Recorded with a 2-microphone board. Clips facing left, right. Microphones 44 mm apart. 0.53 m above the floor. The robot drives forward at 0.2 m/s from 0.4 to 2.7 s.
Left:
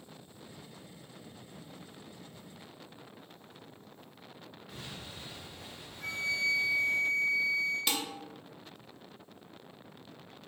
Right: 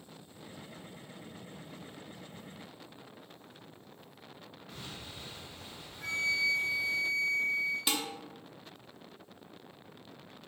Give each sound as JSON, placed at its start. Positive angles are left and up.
{"t": 4.7, "sound": "an explosion", "side_deg": 10, "distance_m": 1.3}
{"t": 6.0, "sound": "a flute", "side_deg": 0, "distance_m": 1.7}
{"t": 7.9, "sound": "dishes clattering", "side_deg": -10, "distance_m": 0.6}